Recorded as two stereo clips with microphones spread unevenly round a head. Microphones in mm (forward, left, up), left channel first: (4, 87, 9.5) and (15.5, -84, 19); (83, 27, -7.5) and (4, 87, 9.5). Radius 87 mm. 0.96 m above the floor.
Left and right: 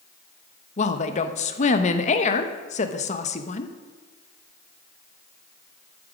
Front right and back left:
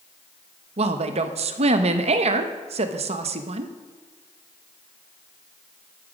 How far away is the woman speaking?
About 1.0 m.